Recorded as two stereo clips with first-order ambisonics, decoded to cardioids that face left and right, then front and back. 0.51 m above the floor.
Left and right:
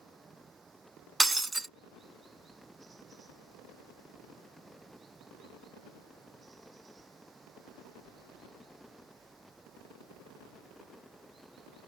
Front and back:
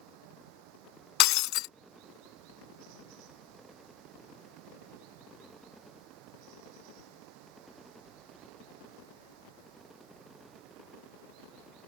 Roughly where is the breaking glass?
Ahead.